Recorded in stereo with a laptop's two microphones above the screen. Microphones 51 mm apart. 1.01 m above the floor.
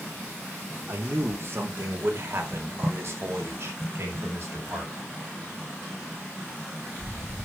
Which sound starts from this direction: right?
A man speaking, at 0.9 s.